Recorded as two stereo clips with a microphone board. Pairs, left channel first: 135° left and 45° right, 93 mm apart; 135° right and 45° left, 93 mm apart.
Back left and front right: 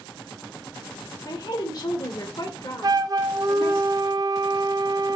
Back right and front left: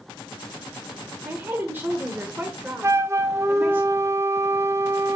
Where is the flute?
10° right, 0.5 m.